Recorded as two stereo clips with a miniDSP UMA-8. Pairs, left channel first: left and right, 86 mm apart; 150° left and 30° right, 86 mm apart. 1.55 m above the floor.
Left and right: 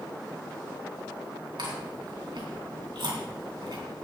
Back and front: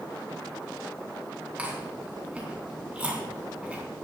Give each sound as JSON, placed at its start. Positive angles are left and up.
{"t": 1.6, "sound": "chewing", "azimuth_deg": -105, "distance_m": 3.5}